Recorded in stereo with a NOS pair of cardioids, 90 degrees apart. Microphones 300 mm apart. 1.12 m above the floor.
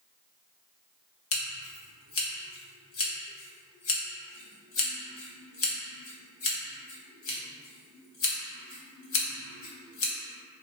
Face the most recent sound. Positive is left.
turn(degrees=50)